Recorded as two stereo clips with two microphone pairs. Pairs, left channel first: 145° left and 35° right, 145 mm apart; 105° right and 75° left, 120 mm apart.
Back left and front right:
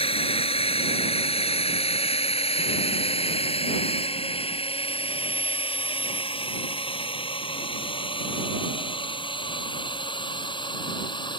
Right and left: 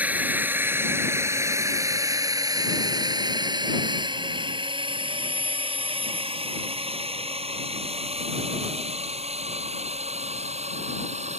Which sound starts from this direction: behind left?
A drone, at 0.0 s.